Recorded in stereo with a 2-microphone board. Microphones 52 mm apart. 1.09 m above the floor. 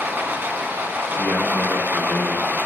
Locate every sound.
0.0 s running water: 40° right (ahead or behind), 1.3 m
1.1 s a man speaking: 35° left (ahead or behind), 3.5 m